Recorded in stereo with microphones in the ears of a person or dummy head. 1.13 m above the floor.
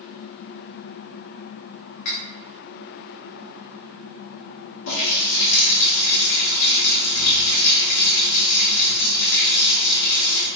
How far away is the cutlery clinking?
About 1.1 m.